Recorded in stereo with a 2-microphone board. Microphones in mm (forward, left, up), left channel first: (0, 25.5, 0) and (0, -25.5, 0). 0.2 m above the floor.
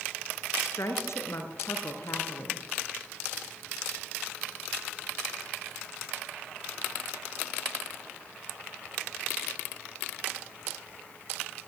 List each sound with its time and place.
0.6 s a woman speaking: 65° left (ahead or behind), 4 m